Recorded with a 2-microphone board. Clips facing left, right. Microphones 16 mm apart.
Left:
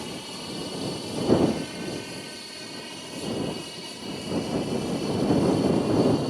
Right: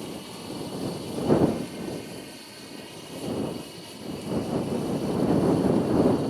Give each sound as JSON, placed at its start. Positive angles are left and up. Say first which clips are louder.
{"t": 0.0, "sound": "an aircraft", "louder": "left 2 dB", "side_deg": 35}